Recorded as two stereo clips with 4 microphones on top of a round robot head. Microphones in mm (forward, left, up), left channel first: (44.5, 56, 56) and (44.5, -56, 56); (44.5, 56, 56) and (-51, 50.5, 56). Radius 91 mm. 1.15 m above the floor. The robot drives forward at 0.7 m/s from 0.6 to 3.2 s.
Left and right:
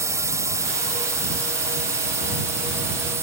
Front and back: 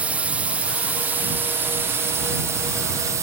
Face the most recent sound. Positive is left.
turn(degrees=-140)